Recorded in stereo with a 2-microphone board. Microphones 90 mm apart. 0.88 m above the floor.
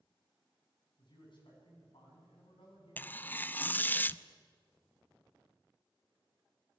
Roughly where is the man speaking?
Left.